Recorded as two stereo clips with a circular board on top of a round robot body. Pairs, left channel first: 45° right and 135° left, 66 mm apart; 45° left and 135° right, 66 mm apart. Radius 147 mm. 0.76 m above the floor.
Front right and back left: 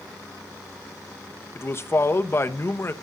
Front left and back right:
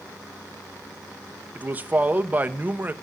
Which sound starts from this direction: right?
A man speaking, at 1.6 s.